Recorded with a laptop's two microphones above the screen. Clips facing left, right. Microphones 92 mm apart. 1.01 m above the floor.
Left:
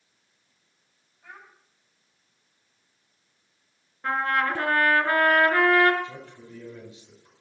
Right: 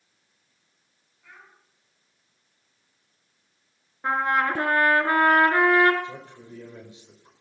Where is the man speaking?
25° right (ahead or behind), 5 m.